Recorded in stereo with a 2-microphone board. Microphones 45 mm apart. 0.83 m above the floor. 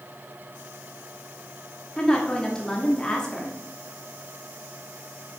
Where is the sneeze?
No sneeze in this recording.